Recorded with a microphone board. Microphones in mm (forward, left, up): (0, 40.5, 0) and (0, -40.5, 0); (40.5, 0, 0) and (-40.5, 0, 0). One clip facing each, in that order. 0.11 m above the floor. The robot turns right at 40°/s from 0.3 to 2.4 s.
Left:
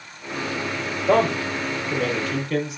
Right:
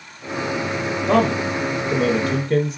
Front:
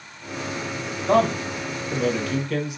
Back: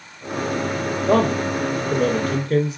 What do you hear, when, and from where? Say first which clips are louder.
1.1 s a man speaking: right 1 dB, back 1 dB; 175° left, 1.8 m; by 2.8 s 135° right, 1.8 m